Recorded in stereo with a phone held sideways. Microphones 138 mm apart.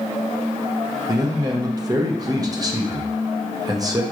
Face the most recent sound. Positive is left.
turn(degrees=-25)  # may be behind; listen again after turning